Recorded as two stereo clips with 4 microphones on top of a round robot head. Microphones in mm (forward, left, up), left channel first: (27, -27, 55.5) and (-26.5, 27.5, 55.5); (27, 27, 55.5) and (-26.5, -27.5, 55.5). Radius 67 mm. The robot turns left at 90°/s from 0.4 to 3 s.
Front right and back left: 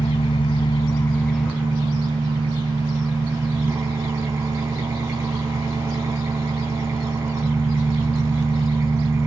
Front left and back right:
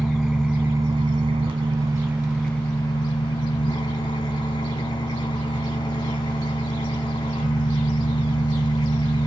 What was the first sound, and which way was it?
An engine running, 45° right.